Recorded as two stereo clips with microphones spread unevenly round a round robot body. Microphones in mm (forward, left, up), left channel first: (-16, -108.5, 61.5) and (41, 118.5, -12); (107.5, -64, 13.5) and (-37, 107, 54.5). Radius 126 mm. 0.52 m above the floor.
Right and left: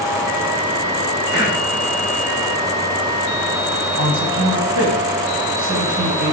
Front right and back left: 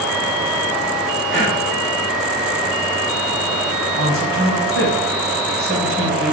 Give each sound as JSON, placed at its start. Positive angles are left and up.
{"t": 1.3, "sound": "breathing", "azimuth_deg": 90, "distance_m": 4.5}
{"t": 4.0, "sound": "a man speaking", "azimuth_deg": 95, "distance_m": 3.5}